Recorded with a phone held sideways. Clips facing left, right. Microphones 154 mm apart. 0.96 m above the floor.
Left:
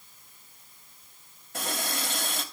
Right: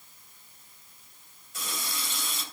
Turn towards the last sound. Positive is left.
turn(degrees=60)  # may be behind; listen again after turning